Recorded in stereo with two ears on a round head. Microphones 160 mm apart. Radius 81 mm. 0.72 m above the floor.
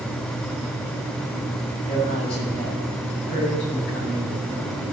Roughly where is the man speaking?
Left.